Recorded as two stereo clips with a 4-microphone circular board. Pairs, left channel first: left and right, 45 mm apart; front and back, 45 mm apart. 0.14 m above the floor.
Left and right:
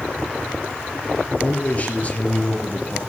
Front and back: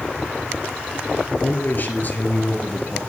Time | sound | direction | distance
1.4 | a man speaking | 40° left | 3 m